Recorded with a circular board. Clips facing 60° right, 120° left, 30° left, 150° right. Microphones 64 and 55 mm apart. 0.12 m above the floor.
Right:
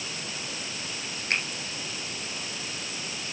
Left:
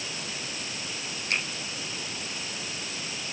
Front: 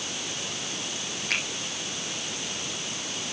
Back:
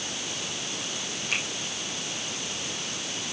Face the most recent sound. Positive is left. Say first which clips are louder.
# right 1 dB, front 1 dB
turn(degrees=-5)